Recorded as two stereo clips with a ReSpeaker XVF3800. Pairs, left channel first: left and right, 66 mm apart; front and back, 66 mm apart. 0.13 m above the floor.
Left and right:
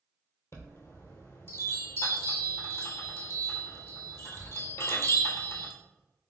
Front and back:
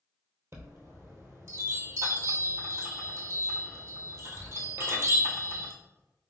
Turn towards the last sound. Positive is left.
turn(degrees=135)